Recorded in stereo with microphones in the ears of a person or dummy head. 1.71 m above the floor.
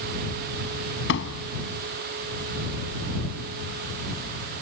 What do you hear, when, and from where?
1.1 s a door slam: 70° left (ahead or behind)